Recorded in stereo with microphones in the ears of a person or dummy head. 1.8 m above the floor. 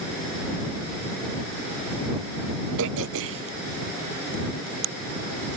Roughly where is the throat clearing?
Right.